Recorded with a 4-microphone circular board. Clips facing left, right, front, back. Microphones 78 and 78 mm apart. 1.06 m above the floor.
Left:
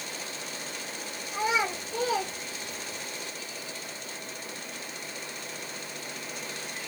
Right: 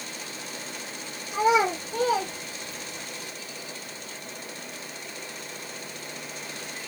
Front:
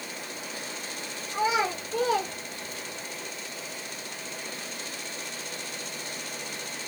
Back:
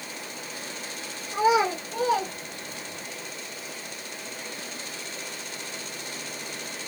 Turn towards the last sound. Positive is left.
turn(degrees=-145)